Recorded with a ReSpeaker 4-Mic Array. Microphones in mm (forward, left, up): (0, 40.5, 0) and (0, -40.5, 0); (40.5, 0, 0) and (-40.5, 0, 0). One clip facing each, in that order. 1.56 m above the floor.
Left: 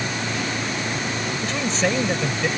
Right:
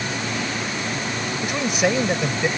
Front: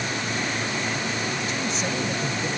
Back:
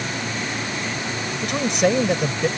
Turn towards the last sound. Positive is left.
turn(degrees=-165)